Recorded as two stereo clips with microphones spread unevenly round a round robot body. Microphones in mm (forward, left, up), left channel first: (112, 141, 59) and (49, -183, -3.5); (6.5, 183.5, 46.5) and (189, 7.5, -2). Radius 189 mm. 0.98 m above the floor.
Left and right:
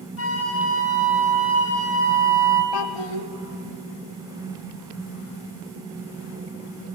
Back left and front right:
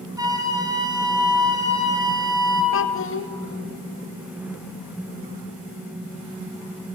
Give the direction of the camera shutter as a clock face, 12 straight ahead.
I don't hear a camera shutter.